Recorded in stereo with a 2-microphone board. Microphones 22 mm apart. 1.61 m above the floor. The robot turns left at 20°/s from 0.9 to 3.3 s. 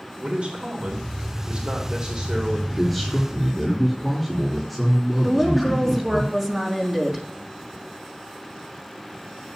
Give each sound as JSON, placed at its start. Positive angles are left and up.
{"t": 0.2, "sound": "a man speaking", "azimuth_deg": -110, "distance_m": 2.5}
{"t": 2.7, "sound": "a man speaking", "side_deg": 15, "distance_m": 4.0}
{"t": 5.2, "sound": "a woman speaking", "side_deg": -15, "distance_m": 3.5}